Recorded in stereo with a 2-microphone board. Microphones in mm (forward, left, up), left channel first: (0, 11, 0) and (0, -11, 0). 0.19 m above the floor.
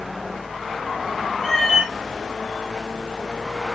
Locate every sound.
1.4 s a cat meowing: 30° left (ahead or behind), 5.5 m